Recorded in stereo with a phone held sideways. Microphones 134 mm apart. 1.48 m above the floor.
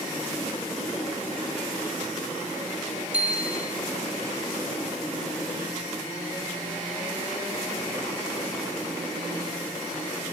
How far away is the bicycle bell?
About 3 m.